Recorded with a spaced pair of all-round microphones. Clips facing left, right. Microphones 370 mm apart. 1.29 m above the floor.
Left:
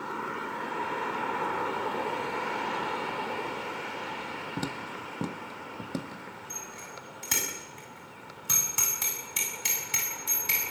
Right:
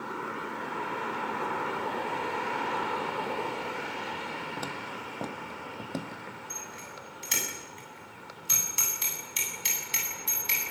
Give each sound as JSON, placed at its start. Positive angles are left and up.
{"t": 4.6, "sound": "footsteps", "side_deg": 40, "distance_m": 1.6}
{"t": 6.5, "sound": "a bicycle bell", "side_deg": 75, "distance_m": 7.0}